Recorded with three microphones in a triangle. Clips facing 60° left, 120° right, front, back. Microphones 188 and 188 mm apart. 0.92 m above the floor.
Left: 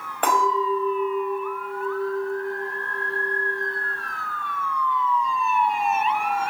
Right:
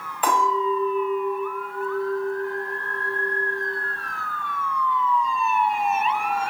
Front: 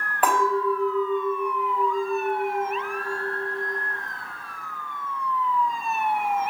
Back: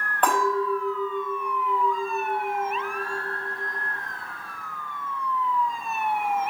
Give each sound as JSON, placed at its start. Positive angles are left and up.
{"t": 0.2, "sound": "a clink", "azimuth_deg": 85, "distance_m": 1.3}